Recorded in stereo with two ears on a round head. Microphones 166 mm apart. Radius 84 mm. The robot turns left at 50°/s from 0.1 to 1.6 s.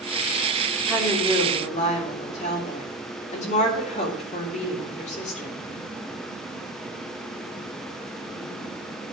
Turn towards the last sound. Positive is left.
turn(degrees=140)